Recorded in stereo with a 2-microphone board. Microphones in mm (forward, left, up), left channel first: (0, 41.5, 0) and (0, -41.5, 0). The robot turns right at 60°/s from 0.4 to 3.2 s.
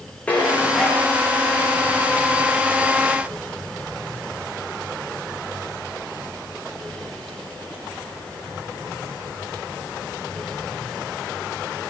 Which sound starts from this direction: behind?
Dishes clattering, at 0.3 s.